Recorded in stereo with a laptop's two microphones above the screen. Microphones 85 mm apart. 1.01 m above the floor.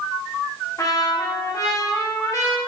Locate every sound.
0.8 s a trumpet: 40° left (ahead or behind), 1.0 m